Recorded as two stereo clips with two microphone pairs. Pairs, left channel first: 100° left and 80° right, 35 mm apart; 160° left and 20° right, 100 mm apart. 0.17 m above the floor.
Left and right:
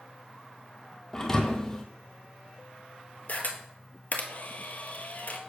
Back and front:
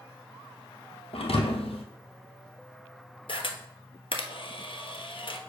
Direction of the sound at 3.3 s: 135° left.